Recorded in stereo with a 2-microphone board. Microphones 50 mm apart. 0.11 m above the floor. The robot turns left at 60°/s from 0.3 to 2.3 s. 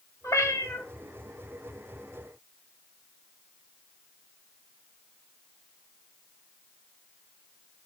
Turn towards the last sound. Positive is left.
turn(degrees=-5)